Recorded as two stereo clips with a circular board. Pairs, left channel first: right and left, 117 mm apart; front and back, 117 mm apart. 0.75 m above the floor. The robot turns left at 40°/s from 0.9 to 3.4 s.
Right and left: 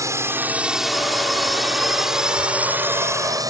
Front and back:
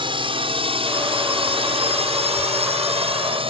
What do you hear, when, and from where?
0.0 s a drone: 150° left